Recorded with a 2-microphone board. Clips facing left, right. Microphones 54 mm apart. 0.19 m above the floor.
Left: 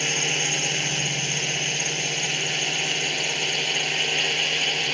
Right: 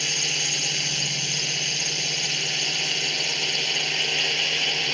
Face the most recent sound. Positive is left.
turn(degrees=5)  # may be behind; listen again after turning